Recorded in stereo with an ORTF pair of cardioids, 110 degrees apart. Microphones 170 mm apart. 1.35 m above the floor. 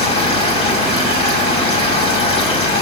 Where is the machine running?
35° left, 6 m.